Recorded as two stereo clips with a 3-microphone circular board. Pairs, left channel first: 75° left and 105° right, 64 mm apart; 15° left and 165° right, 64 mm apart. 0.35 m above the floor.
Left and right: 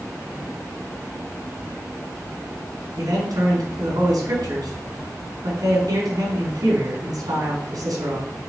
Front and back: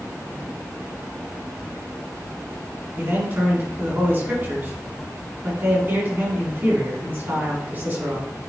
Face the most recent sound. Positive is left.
turn(degrees=-105)